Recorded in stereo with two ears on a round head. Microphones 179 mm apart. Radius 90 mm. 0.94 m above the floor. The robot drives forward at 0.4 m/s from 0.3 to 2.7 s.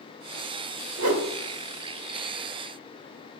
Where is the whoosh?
80° right, 1.7 m; by 1.2 s 85° right, 1.7 m.